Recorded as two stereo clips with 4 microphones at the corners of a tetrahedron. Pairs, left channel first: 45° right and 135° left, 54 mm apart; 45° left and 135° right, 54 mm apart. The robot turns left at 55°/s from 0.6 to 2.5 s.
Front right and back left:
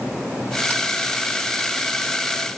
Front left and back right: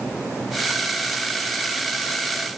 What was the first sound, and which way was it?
Only background noise.